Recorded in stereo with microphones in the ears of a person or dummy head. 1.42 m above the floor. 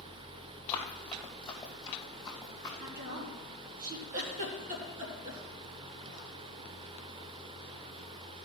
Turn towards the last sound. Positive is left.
turn(degrees=-40)  # may be behind; listen again after turning